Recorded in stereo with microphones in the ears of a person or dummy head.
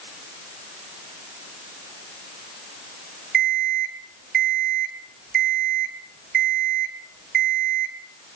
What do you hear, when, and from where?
3.3 s an alarm clock: 65° right (ahead or behind), 3.5 m